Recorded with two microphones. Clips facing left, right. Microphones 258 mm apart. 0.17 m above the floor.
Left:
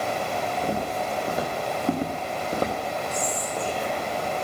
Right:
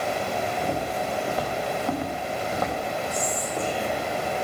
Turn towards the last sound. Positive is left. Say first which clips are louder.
# right 1 dB
turn(degrees=-15)  # may be behind; listen again after turning